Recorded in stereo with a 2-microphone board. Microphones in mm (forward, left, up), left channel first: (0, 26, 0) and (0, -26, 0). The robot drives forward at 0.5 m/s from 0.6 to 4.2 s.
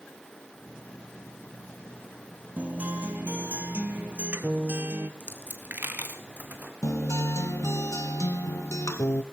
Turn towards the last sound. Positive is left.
turn(degrees=65)  # may be behind; listen again after turning